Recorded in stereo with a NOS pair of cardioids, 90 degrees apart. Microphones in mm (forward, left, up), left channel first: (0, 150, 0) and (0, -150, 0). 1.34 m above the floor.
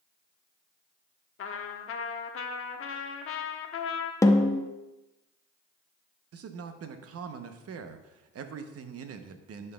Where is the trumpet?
50° left, 0.9 m.